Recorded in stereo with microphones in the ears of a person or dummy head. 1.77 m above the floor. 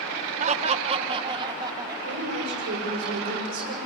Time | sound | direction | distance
0.4 | laughter | 40° right (ahead or behind) | 1.8 m
2.0 | a woman speaking | 60° right (ahead or behind) | 7.5 m